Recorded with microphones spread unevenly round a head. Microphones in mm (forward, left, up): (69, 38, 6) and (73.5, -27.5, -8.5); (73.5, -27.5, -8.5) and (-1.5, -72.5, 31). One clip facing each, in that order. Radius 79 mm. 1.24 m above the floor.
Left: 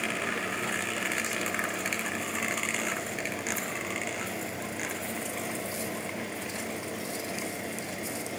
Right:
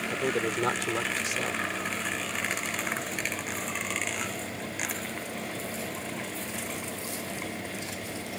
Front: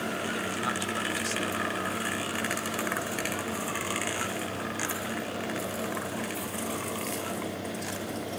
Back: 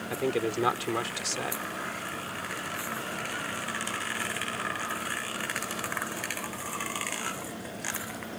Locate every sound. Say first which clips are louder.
0.1 s a man speaking: right 3 dB, back 4 dB; 135° right